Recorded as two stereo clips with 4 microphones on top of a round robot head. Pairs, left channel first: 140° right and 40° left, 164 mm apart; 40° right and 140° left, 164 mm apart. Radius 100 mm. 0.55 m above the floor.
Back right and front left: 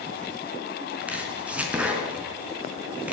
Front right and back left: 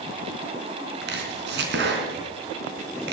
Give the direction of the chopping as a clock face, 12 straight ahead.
8 o'clock.